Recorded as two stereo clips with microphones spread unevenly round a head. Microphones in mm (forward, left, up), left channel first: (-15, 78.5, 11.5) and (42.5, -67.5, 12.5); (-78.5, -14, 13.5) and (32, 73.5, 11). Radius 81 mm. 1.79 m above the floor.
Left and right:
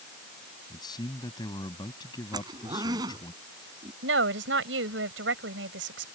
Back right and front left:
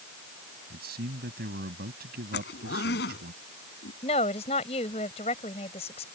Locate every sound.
0.7 s a man speaking: 45° left
2.3 s a zipper: 135° right
4.0 s a woman speaking: 85° right